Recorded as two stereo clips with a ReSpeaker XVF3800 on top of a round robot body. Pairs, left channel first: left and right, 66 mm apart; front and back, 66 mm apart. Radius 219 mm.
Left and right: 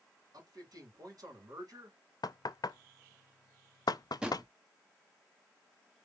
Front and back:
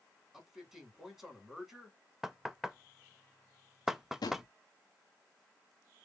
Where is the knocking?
95° left, 0.5 m.